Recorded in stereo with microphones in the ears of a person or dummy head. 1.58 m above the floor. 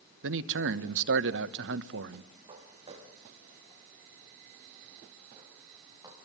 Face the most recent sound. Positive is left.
turn(degrees=-15)  # may be behind; listen again after turning